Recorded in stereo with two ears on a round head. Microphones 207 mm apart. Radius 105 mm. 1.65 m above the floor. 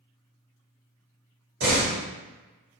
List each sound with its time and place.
1.6 s a door slam: 50° right (ahead or behind), 1.5 m